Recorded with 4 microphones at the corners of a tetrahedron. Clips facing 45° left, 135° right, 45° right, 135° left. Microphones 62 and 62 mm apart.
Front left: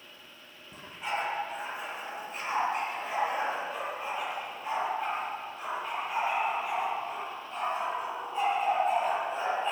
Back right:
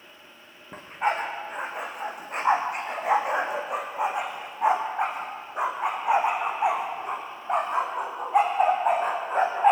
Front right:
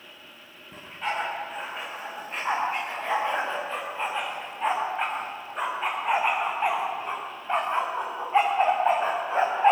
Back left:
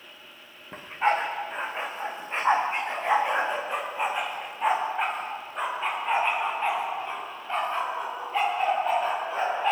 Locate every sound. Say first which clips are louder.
0.7 s a dog barking: back right 8 dB, back left 6 dB; 175° right, 5 m; by 9.7 s 100° right, 6 m